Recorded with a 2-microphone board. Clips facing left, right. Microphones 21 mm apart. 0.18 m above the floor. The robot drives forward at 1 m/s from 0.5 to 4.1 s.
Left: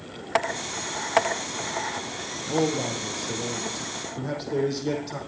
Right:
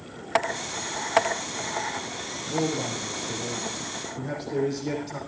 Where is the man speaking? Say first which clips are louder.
Left 3 dB; 40° left (ahead or behind), 4.5 m; by 5.2 s 30° left (ahead or behind), 5.5 m.